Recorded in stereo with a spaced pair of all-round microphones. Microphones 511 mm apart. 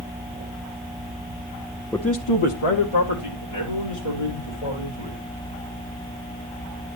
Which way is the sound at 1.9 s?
Centre (ahead or behind).